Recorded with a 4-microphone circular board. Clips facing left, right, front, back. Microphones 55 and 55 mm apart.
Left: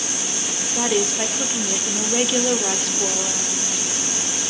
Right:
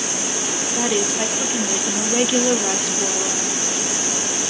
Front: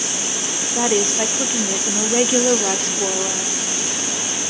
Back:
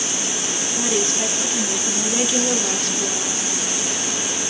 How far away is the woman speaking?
About 1.0 m.